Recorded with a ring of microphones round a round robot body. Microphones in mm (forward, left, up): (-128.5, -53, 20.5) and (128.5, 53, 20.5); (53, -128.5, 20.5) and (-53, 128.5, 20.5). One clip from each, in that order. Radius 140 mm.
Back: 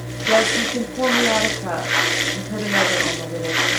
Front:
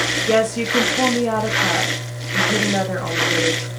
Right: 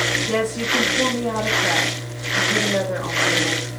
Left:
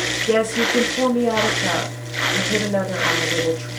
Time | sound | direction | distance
0.3 | a woman speaking | 65° left | 0.5 m